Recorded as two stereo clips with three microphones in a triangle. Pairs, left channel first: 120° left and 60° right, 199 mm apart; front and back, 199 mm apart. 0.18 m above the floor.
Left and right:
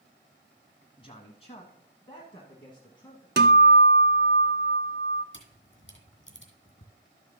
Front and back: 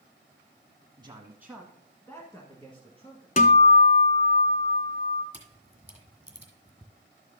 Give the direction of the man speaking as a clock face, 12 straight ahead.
7 o'clock.